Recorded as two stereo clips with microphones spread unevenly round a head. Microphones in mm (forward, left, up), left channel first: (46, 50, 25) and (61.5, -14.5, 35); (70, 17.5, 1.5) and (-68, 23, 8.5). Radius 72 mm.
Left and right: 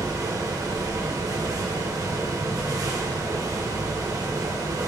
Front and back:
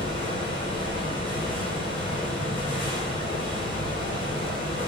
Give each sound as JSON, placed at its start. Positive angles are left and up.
{"t": 0.0, "sound": "a fan", "azimuth_deg": -60, "distance_m": 1.2}